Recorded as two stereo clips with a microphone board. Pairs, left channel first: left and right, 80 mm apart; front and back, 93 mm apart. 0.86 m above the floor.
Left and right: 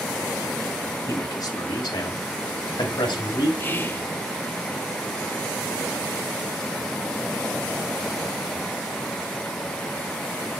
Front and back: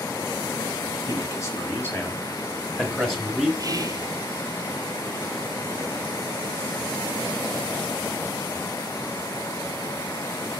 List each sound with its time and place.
1.1 s a man speaking: 50° left, 1.7 m; by 3.5 s 95° left, 2.5 m
3.6 s whispering: 145° left, 0.6 m